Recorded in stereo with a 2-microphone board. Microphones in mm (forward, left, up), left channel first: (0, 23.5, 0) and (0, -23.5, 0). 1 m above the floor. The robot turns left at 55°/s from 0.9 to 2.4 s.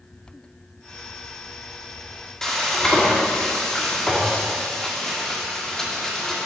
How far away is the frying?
About 2.5 m.